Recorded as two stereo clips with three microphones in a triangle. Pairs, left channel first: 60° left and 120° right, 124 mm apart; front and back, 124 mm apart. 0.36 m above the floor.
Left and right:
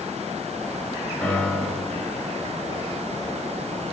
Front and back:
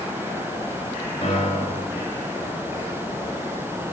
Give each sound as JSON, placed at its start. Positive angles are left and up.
{"t": 1.2, "sound": "a piano", "azimuth_deg": -25, "distance_m": 3.0}